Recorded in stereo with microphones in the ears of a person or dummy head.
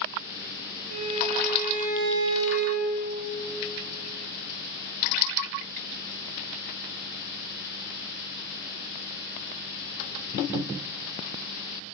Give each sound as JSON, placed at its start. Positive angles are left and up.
{"t": 0.9, "sound": "a violin", "side_deg": -80, "distance_m": 1.7}